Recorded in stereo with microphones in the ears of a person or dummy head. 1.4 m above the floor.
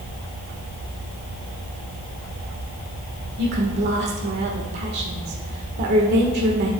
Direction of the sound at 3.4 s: 50° right (ahead or behind).